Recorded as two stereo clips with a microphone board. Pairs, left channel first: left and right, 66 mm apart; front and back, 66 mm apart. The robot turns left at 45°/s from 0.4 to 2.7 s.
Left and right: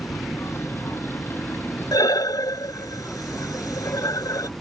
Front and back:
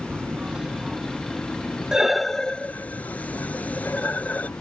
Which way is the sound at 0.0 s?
120° left.